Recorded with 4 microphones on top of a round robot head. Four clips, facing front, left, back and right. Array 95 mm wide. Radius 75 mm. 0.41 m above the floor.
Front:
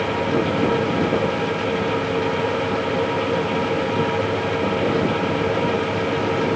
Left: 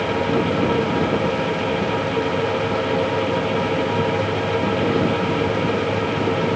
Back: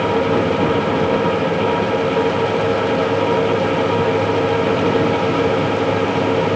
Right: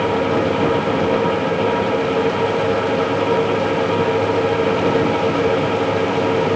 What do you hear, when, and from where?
Only background noise.